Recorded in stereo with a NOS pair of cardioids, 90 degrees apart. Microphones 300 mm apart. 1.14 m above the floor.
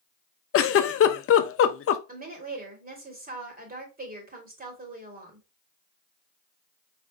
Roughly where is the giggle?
Ahead left.